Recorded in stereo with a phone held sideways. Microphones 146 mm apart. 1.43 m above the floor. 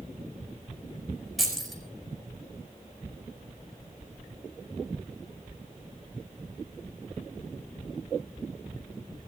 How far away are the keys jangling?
About 5 m.